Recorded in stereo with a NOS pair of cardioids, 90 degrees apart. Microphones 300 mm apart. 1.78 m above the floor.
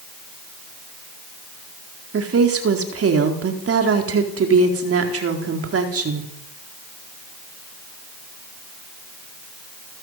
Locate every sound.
2.1 s a woman speaking: 45° right, 4.5 m